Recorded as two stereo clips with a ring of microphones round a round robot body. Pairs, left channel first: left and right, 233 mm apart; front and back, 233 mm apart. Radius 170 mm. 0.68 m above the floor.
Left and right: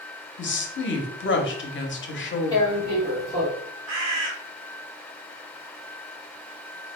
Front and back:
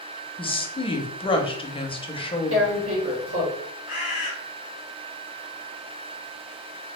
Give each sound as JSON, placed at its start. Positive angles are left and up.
{"t": 0.4, "sound": "a woman speaking", "azimuth_deg": 65, "distance_m": 0.8}
{"t": 2.5, "sound": "tearing paper", "azimuth_deg": 165, "distance_m": 1.2}
{"t": 3.9, "sound": "a bird", "azimuth_deg": -95, "distance_m": 0.9}